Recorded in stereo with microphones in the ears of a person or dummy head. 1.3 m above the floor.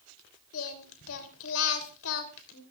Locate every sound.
0.5 s singing: 75° left (ahead or behind), 3 m